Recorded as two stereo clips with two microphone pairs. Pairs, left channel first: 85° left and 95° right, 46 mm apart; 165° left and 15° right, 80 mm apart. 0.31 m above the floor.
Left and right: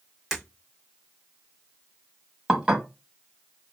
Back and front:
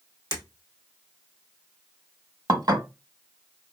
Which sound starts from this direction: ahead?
Breaking glass, at 0.3 s.